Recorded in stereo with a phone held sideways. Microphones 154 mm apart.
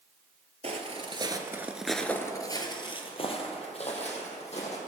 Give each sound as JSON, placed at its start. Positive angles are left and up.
{"t": 0.6, "sound": "footsteps", "side_deg": -45, "distance_m": 1.4}